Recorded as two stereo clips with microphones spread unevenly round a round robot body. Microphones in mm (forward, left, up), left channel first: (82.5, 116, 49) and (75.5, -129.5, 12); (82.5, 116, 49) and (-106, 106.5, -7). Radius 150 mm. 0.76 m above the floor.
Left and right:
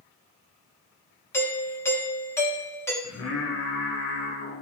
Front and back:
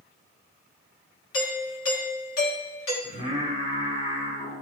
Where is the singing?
55° left, 2 m.